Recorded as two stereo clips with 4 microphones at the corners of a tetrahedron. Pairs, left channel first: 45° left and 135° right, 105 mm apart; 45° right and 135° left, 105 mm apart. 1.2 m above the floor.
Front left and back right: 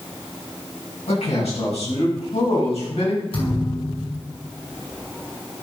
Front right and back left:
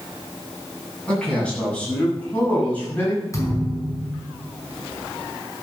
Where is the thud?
15° left, 5 m.